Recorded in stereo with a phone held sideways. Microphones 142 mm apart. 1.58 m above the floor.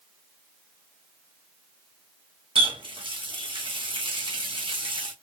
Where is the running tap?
35° right (ahead or behind), 1.0 m.